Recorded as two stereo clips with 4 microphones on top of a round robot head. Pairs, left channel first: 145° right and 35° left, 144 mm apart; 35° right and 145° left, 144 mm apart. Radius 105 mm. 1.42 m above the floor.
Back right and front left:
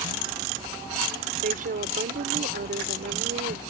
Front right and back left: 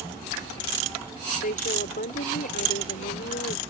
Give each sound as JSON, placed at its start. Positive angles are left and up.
{"t": 1.4, "sound": "a woman speaking", "azimuth_deg": 0}